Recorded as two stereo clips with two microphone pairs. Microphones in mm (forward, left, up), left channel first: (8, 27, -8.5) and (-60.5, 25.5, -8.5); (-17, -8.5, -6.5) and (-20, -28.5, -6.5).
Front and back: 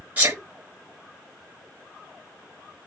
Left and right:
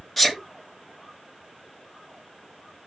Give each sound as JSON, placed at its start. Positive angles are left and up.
{"t": 0.2, "sound": "a sneeze", "azimuth_deg": 155, "distance_m": 0.9}